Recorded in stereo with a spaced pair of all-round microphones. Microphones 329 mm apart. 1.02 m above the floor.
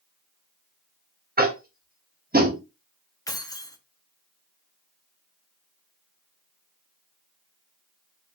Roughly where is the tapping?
Right.